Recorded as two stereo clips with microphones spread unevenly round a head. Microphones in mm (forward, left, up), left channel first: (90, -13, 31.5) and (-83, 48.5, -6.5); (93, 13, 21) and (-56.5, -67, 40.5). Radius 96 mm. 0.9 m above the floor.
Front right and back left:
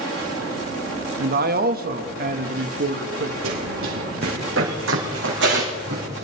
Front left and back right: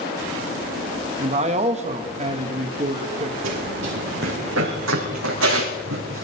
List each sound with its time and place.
1.2 s a man speaking: 155° left, 1.2 m
3.4 s running footsteps: straight behind, 5 m; by 6.2 s 160° right, 4 m